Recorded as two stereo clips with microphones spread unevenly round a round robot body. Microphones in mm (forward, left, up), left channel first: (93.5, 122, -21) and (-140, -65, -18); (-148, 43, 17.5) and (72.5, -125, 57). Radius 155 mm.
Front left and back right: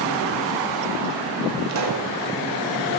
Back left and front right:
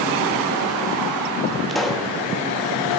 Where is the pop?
135° right, 1.4 m.